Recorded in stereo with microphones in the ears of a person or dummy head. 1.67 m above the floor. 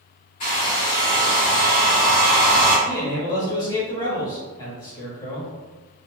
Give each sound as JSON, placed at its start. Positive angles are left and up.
{"t": 0.4, "sound": "a hair dryer", "side_deg": 30, "distance_m": 1.5}
{"t": 2.9, "sound": "a man speaking", "side_deg": 20, "distance_m": 1.0}